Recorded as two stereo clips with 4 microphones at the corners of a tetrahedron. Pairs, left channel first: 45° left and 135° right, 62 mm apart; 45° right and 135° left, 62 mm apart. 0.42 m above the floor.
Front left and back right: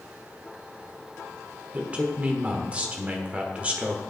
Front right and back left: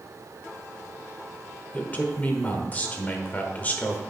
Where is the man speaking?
85° right, 1.0 m.